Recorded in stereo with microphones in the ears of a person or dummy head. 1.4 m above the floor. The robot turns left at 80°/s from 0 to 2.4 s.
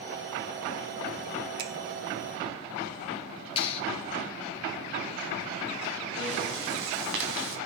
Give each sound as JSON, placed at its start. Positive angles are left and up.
{"t": 1.6, "sound": "a finger snap", "side_deg": -65, "distance_m": 1.9}
{"t": 3.6, "sound": "a clap", "side_deg": 30, "distance_m": 2.5}
{"t": 6.2, "sound": "breathing", "side_deg": -65, "distance_m": 3.0}